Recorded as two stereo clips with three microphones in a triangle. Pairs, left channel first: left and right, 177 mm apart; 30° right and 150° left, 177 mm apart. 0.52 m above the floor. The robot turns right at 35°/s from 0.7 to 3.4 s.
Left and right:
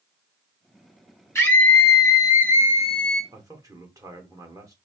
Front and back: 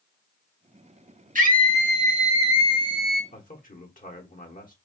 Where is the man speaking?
25° right, 1.3 m.